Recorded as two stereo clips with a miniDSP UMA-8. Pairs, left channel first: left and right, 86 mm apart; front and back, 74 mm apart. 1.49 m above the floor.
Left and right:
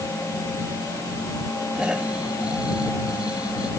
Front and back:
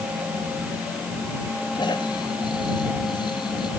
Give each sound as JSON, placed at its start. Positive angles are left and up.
{"t": 1.8, "sound": "snoring", "azimuth_deg": -10}